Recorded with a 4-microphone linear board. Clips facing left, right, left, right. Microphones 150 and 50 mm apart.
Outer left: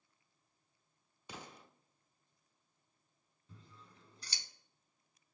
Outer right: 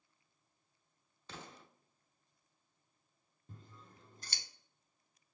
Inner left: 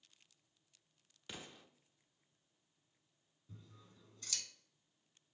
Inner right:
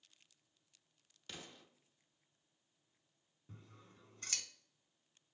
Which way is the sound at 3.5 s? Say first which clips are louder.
Outer right 3 dB, inner right 1 dB; 50° right (ahead or behind).